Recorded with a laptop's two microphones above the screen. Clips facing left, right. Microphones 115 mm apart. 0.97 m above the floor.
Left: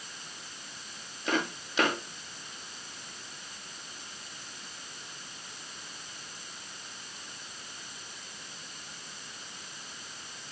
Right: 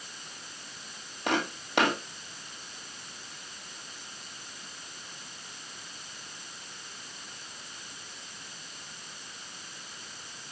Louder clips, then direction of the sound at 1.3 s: Right 1 dB; 60° right (ahead or behind).